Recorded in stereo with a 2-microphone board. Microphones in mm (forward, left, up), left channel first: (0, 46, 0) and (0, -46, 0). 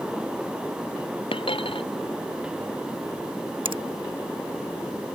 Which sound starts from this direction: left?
A dropped coin, at 1.3 s.